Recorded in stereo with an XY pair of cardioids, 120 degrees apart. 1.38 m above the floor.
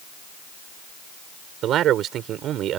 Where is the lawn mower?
I don't hear a lawn mower.